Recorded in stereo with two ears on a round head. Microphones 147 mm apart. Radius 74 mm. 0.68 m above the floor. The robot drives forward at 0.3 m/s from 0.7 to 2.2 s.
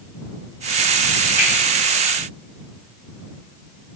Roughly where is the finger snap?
Centre.